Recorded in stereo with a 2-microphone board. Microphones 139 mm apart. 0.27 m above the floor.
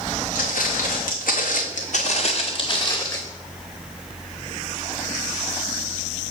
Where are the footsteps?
70° left (ahead or behind), 1.8 m; by 3.2 s 20° left (ahead or behind), 1.8 m.